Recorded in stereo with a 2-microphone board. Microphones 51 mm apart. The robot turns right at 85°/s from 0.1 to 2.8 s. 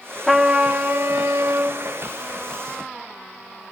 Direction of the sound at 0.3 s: Straight behind.